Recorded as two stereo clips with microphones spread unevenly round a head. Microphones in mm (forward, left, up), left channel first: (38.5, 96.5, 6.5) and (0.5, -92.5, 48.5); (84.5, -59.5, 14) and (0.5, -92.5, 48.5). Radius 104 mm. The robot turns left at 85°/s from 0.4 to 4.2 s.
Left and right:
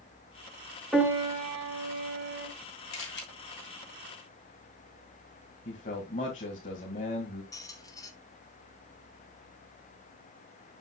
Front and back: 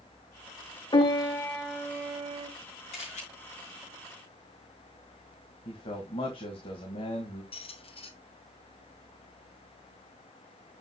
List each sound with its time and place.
0.9 s a piano: 10° right, 2 m; by 2.5 s 145° right, 2 m
2.9 s a camera shutter: 65° left, 2.5 m; by 3.2 s 40° left, 2.5 m
5.7 s a man speaking: 30° left, 2 m
7.5 s a squeak: straight ahead, 1.7 m